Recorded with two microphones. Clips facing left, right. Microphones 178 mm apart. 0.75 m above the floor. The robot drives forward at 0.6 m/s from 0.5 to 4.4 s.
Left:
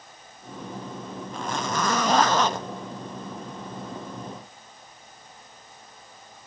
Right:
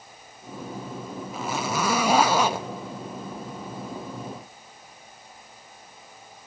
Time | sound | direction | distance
1.3 | a zipper | 5° right (ahead or behind) | 0.9 m